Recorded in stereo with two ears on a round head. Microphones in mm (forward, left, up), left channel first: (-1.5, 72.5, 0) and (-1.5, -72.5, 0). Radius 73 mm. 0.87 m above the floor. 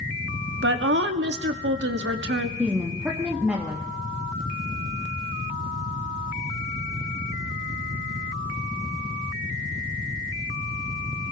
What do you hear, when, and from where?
0.6 s a woman speaking: 75° right (ahead or behind), 1.3 m
2.6 s a woman speaking: 10° right (ahead or behind), 1.5 m